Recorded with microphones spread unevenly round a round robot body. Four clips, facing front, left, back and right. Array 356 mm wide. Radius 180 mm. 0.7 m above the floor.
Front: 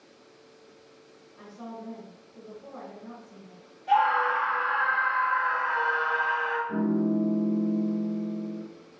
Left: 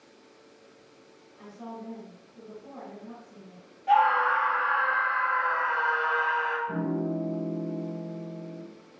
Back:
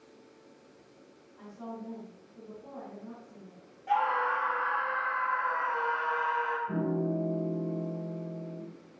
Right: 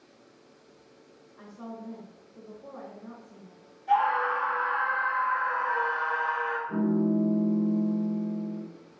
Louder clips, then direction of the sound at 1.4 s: Left 1 dB, front 1 dB; 40° right.